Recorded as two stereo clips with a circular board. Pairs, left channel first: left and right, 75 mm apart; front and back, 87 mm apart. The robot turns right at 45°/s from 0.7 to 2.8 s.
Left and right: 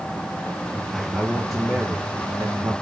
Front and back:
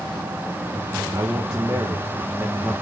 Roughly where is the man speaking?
Behind.